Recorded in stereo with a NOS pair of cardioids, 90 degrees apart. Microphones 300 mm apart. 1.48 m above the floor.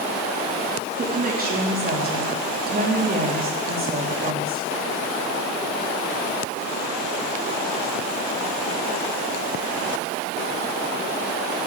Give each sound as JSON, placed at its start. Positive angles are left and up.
{"t": 1.0, "sound": "a woman speaking", "azimuth_deg": -30, "distance_m": 3.5}